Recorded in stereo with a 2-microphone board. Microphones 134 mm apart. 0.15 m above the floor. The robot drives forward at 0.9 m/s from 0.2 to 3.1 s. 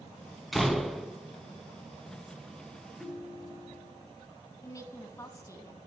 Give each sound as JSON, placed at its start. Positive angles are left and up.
{"t": 0.5, "sound": "a door slam", "side_deg": 0, "distance_m": 0.7}
{"t": 3.0, "sound": "a ringtone", "side_deg": 5, "distance_m": 3.0}
{"t": 4.6, "sound": "a woman speaking", "side_deg": 25, "distance_m": 1.1}